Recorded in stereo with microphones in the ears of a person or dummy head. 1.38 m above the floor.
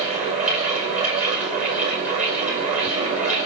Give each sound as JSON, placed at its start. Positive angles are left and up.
{"t": 0.0, "sound": "a fan", "side_deg": -40, "distance_m": 2.0}